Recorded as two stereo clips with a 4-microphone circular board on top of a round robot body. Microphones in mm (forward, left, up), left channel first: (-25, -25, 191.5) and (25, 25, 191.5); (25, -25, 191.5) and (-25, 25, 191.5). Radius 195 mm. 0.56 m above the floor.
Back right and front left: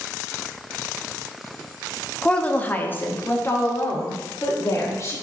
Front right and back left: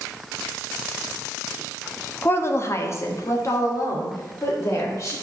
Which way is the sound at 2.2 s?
70° right.